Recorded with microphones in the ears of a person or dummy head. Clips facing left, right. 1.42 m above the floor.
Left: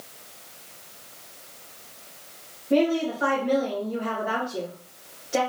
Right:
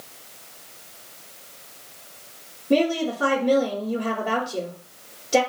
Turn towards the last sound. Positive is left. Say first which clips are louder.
# right 1 dB
turn(degrees=-60)  # may be behind; listen again after turning